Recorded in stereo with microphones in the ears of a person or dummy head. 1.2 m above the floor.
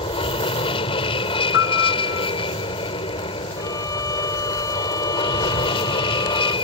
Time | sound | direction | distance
0.0 | an aircraft | 35° left (ahead or behind) | ?
1.5 | a piano | 75° left (ahead or behind) | ?
3.6 | a violin | 15° left (ahead or behind) | ?